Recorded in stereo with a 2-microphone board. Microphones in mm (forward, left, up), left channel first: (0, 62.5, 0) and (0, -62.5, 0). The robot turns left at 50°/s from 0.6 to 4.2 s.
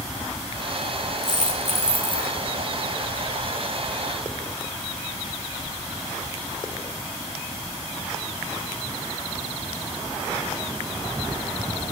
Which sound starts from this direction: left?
A dropped coin, at 1.2 s.